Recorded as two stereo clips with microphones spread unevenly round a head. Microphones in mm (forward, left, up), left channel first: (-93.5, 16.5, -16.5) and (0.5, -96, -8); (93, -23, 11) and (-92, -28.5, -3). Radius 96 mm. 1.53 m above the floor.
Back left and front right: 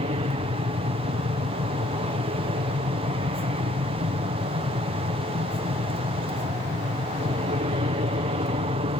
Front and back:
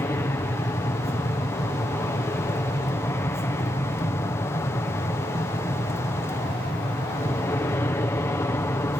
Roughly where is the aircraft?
Right.